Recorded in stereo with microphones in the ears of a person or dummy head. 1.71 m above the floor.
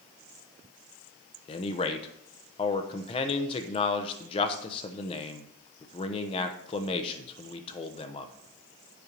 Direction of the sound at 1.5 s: 35° left (ahead or behind).